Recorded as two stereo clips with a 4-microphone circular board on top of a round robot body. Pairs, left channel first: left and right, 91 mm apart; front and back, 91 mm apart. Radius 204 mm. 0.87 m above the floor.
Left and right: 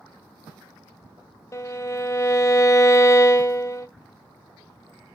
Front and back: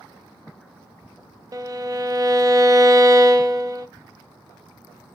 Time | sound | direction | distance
1.5 | a violin | 140° left | 0.8 m